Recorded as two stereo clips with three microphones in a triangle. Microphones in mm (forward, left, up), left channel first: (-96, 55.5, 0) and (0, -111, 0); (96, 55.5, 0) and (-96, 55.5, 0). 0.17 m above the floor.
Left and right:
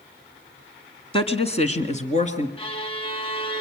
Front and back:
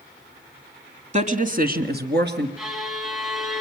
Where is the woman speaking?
160° left, 1.5 m; by 2.5 s 170° left, 3 m.